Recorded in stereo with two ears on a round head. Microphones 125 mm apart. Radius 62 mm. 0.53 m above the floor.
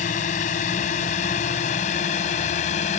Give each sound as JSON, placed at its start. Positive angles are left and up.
{"t": 0.0, "sound": "a drone", "side_deg": 55}